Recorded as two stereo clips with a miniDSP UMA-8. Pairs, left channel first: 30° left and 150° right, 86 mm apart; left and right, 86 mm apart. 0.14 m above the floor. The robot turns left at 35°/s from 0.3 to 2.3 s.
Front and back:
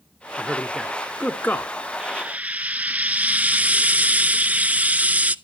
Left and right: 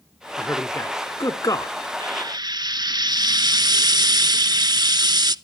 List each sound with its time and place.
0.4 s a man speaking: 130° left, 1.4 m; by 1.8 s 80° left, 1.4 m
2.0 s frying: 70° right, 0.5 m; by 5.3 s 80° right, 0.5 m